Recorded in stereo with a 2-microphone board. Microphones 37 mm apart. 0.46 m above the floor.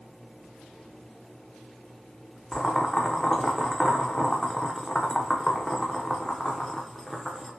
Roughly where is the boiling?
Centre.